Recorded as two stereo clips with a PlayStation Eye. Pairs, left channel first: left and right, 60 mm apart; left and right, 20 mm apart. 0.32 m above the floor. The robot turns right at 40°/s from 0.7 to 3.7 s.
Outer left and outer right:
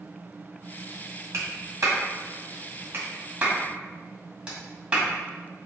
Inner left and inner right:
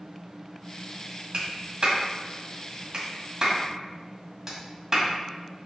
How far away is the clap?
About 2 m.